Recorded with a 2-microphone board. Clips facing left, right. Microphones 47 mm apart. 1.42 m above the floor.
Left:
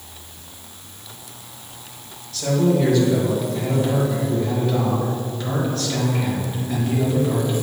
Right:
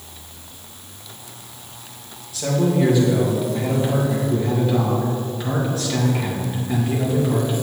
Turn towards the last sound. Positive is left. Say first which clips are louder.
# left 1 dB
turn(degrees=-10)  # may be behind; listen again after turning